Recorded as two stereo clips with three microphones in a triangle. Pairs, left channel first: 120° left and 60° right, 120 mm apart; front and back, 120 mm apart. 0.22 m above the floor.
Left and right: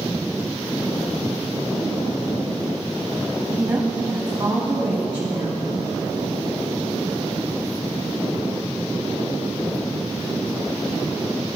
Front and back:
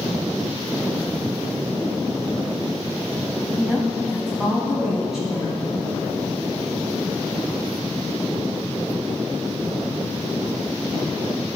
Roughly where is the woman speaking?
Right.